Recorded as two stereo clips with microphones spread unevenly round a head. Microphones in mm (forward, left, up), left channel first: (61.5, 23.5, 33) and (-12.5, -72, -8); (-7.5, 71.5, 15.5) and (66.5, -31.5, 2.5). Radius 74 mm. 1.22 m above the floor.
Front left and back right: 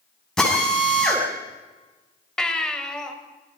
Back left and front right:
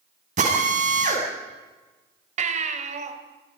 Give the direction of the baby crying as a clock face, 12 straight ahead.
1 o'clock.